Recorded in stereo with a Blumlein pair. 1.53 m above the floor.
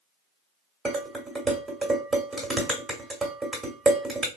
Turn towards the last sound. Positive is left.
turn(degrees=-10)